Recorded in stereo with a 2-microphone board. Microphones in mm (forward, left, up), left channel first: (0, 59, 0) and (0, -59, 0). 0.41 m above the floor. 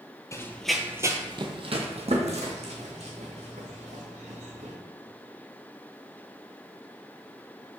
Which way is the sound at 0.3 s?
25° left (ahead or behind).